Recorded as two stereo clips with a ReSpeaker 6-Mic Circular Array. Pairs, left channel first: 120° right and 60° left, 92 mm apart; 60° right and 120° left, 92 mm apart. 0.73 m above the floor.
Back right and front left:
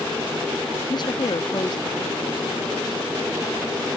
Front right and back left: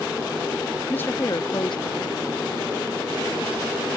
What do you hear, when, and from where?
0.9 s a woman speaking: 130° right; by 3.5 s 65° right